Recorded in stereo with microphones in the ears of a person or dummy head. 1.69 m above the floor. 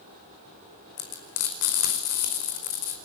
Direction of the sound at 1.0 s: 60° left (ahead or behind).